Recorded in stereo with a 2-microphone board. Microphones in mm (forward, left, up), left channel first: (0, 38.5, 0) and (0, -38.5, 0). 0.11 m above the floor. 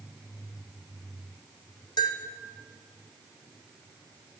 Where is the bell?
75° left (ahead or behind), 2.5 m.